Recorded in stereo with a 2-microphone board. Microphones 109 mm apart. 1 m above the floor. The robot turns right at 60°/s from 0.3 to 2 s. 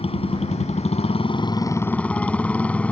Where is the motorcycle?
65° left; by 2.9 s 170° left.